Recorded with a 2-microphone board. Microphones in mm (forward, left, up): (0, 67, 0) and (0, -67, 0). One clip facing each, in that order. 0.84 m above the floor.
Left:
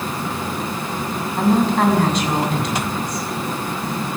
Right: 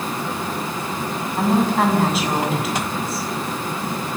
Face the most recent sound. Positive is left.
turn(degrees=-5)  # may be behind; listen again after turning